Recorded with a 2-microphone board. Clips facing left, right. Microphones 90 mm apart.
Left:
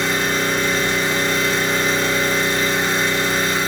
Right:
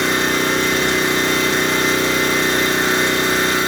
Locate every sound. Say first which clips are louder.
0.0 s an engine running: right 2 dB; 70° right (ahead or behind), 0.8 m